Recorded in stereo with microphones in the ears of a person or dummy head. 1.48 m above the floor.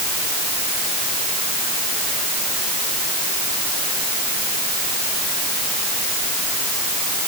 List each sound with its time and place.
Only background noise.